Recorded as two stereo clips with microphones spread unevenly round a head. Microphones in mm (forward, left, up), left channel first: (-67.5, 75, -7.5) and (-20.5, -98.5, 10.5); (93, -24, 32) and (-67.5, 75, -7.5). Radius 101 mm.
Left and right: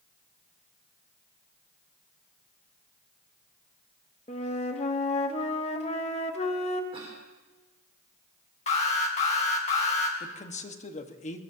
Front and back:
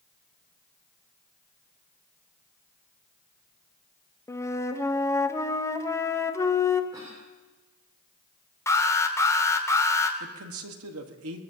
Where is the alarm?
45° left, 1.6 m.